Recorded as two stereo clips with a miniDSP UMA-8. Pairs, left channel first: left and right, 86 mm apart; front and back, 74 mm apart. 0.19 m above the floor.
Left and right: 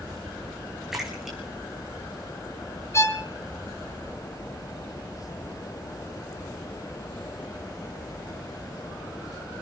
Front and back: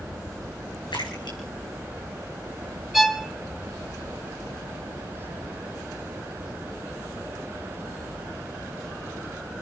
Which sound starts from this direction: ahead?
A splash, at 0.9 s.